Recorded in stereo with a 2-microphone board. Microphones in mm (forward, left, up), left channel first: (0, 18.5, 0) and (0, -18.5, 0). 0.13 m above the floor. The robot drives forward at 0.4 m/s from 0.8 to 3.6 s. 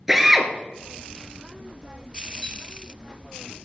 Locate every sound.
0.1 s a drill: 10° right (ahead or behind), 1.4 m
2.4 s a clink: 5° right (ahead or behind), 2 m